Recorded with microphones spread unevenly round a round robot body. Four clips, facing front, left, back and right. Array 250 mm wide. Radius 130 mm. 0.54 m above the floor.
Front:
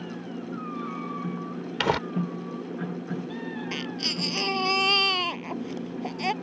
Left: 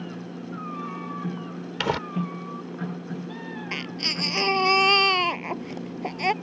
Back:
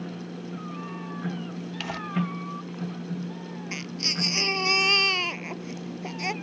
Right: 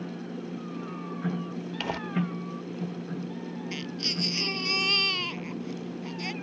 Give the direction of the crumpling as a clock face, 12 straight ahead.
11 o'clock.